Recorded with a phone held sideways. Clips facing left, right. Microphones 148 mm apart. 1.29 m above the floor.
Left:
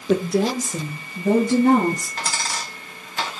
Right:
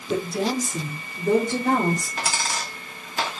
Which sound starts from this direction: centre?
A dropped coin, at 2.2 s.